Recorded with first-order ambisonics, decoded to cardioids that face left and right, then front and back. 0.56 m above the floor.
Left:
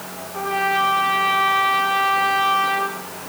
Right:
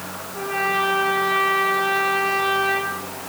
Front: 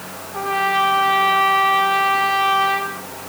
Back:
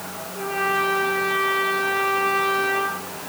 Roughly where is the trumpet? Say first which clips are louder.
Left 2 dB, front 4 dB; ahead left.